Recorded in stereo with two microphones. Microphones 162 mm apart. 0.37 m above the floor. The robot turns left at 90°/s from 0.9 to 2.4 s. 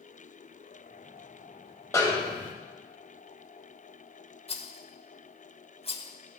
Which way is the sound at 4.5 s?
35° left (ahead or behind).